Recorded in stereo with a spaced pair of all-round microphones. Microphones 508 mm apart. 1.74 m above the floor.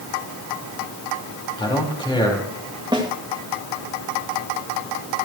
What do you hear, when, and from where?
1.6 s a man speaking: 10° left (ahead or behind), 4.5 m
2.9 s a snare drum: 10° right (ahead or behind), 2 m